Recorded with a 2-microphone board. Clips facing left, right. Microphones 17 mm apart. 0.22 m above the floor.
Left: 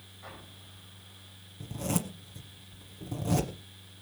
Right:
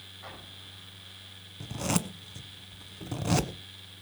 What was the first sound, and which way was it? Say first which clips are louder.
An explosion: right 1 dB; 25° right (ahead or behind).